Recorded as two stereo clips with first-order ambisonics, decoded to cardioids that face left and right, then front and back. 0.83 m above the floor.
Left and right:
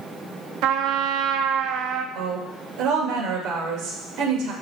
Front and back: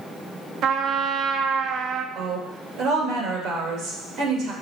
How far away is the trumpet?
About 0.7 m.